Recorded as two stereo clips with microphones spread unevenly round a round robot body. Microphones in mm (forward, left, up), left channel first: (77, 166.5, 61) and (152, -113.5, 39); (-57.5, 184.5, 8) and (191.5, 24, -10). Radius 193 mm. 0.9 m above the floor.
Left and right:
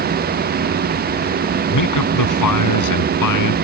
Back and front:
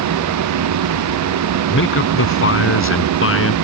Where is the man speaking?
105° left.